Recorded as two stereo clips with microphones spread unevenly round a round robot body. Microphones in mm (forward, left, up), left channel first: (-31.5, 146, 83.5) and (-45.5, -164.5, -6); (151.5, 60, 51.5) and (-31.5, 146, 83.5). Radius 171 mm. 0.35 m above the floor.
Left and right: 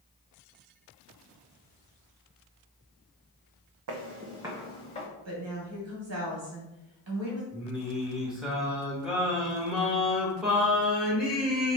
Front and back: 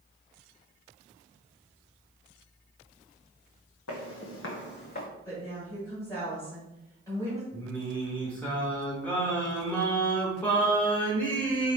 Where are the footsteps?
50° right, 0.7 m; by 5.1 s 25° left, 1.2 m.